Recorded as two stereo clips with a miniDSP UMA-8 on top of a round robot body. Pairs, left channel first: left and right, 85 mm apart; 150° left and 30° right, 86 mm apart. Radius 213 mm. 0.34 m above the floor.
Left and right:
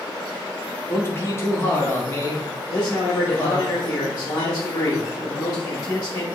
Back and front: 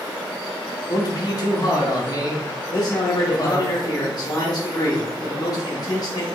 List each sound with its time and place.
0.9 s a man speaking: 140° left, 1.7 m
2.7 s a man speaking: 130° left, 1.3 m